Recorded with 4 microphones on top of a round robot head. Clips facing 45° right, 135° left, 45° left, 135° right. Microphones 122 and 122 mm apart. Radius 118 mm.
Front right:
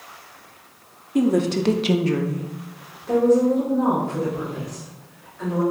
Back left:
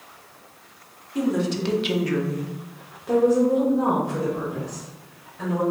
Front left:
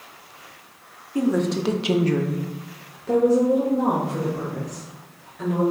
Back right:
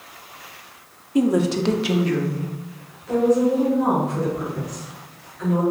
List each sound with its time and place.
1.1 s a woman speaking: 70° right, 0.7 m; by 5.6 s 70° left, 2.5 m